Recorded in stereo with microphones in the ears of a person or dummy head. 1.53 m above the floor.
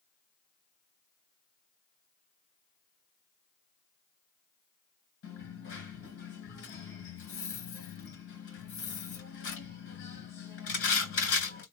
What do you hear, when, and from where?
5.2 s a dropped coin: 60° left (ahead or behind), 2.5 m